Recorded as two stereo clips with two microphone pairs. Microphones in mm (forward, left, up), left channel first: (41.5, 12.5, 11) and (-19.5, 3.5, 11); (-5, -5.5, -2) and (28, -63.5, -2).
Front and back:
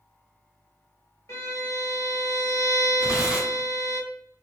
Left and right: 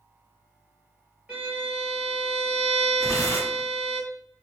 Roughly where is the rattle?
I don't hear a rattle.